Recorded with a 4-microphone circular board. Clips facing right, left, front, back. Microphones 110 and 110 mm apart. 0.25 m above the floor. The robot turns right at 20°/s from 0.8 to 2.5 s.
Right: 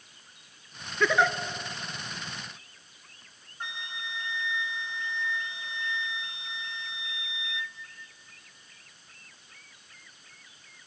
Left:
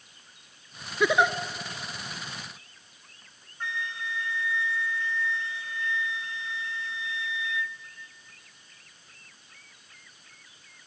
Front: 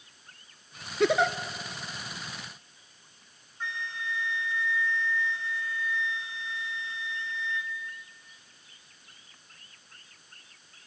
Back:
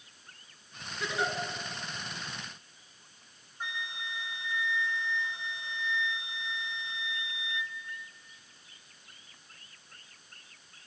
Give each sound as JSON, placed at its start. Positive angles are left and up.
{"t": 1.0, "sound": "a giggle", "azimuth_deg": 15, "distance_m": 0.8}
{"t": 3.6, "sound": "a flute", "azimuth_deg": -130, "distance_m": 0.7}